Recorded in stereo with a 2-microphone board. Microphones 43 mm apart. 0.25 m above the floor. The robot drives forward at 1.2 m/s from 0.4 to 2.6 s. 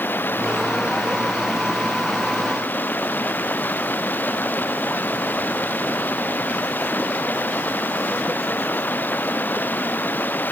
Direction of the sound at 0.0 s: 45° left (ahead or behind).